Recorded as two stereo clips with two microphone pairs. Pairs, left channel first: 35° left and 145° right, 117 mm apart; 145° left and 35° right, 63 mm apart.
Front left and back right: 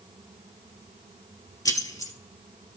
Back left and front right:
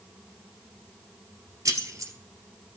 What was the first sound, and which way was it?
Keys jangling, 20° right.